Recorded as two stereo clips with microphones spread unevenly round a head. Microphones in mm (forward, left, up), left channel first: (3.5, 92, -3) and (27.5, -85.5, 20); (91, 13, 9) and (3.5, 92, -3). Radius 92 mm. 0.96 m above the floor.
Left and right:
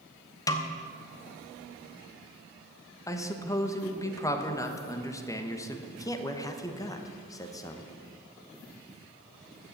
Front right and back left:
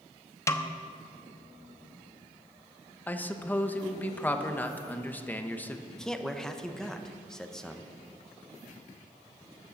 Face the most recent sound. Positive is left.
turn(degrees=50)